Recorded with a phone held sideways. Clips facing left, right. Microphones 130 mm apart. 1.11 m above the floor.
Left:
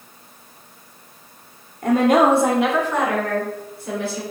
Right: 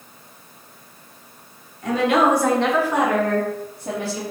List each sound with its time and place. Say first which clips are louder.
1.8 s a woman speaking: left 3 dB; 55° left (ahead or behind), 1.0 m; by 4.2 s 45° right (ahead or behind), 1.9 m